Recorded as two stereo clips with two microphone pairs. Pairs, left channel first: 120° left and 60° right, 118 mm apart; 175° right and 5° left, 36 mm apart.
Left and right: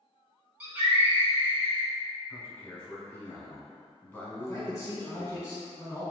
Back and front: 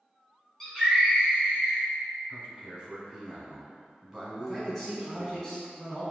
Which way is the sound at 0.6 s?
120° right.